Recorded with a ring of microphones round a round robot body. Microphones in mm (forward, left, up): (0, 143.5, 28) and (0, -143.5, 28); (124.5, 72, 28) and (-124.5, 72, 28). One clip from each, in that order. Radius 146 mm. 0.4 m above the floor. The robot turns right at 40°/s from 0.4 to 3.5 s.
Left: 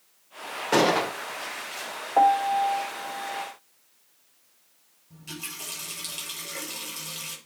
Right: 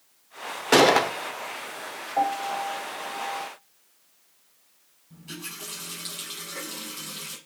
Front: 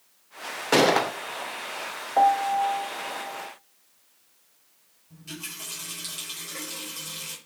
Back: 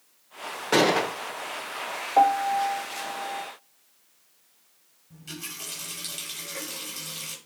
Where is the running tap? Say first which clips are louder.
Left 1 dB, even; 105° left, 6 m.